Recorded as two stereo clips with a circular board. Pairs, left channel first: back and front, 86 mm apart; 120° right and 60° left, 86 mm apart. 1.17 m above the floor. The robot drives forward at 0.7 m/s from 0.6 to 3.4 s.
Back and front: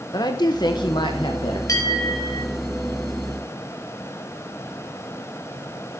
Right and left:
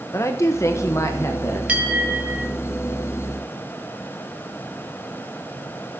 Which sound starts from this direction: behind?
A woman speaking, at 0.1 s.